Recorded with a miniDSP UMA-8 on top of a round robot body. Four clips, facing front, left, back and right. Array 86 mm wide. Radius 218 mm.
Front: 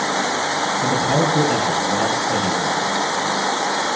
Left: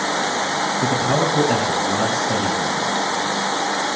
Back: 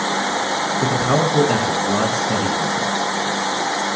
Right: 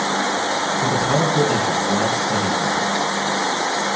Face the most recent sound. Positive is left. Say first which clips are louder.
# even, back 1 dB
turn(degrees=165)